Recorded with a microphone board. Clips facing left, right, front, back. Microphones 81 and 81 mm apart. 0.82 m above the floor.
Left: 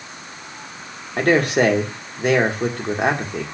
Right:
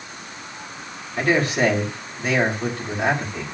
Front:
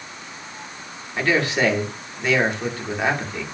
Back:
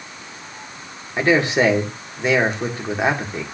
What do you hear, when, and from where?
1.2 s a man speaking: 115° left, 2.5 m